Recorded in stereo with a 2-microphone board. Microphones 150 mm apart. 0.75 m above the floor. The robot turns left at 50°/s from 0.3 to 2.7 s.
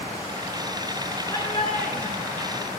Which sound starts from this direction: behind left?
A shout, at 1.3 s.